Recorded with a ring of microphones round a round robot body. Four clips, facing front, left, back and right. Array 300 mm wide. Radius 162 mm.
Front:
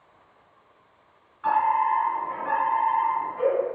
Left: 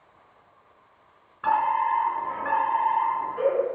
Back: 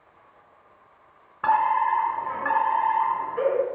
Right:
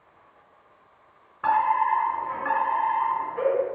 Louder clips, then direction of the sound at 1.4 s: Right 1 dB, back 1 dB; 165° right.